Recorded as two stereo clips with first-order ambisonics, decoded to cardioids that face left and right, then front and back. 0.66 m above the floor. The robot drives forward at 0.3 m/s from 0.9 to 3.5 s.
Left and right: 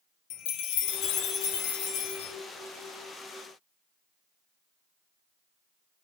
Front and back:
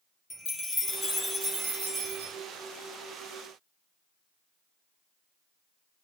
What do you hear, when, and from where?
0.3 s a chime: 80° left, 0.6 m; by 2.3 s 125° left, 0.7 m